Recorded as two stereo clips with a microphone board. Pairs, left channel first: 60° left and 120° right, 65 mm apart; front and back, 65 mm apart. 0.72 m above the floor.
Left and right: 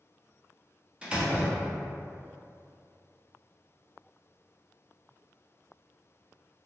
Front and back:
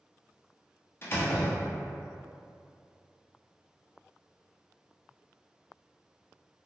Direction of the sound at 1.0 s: 50° right.